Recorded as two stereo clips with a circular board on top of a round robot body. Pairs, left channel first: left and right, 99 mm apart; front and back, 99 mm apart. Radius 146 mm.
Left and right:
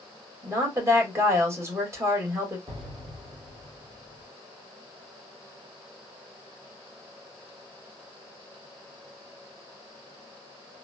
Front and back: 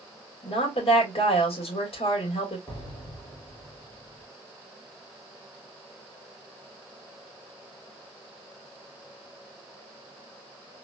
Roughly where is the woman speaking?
Ahead right.